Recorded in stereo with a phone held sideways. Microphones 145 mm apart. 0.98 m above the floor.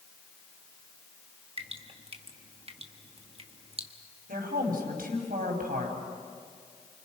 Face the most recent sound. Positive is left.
turn(degrees=-85)